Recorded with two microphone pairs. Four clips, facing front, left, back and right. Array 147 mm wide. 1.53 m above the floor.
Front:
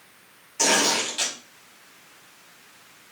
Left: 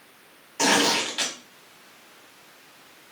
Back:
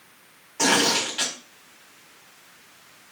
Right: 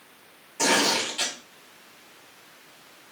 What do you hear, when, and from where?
0.6 s tearing paper: 120° left, 2.5 m